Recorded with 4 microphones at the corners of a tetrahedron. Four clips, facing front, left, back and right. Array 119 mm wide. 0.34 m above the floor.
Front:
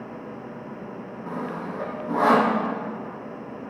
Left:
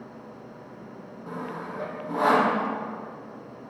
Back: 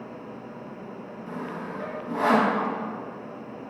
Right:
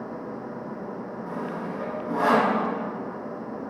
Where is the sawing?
15° left, 2 m.